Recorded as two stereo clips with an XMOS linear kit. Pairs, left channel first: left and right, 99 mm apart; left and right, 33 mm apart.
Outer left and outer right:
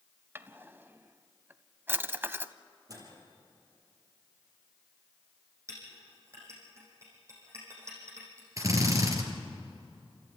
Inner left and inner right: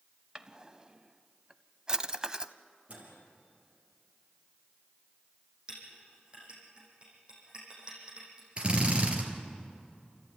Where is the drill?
35° right (ahead or behind), 3 m.